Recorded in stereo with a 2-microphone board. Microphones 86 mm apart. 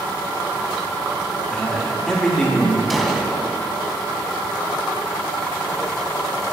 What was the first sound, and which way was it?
A man speaking, 5° left (ahead or behind).